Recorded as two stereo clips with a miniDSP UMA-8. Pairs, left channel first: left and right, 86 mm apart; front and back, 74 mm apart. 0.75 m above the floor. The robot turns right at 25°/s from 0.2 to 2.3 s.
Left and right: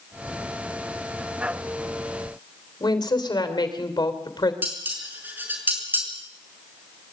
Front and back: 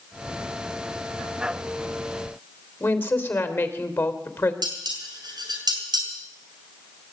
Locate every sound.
2.8 s a woman speaking: 60° left, 3 m
4.6 s dishes clattering: 155° right, 5.5 m